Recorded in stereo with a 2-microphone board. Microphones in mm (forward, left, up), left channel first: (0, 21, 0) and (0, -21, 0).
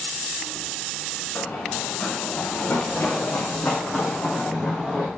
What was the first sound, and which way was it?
Running footsteps, 65° left (ahead or behind).